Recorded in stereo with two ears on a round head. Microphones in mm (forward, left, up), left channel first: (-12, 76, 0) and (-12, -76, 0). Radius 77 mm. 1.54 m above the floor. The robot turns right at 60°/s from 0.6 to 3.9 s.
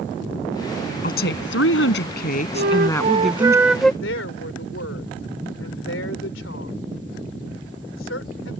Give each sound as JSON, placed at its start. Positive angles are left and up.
{"t": 1.0, "sound": "a woman speaking", "azimuth_deg": 50}
{"t": 2.5, "sound": "a flute", "azimuth_deg": -75}
{"t": 4.0, "sound": "a woman speaking", "side_deg": 80}